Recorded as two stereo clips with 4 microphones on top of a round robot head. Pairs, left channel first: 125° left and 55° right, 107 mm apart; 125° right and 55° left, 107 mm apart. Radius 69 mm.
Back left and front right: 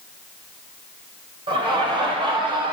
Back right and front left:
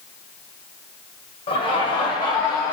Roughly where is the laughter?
Right.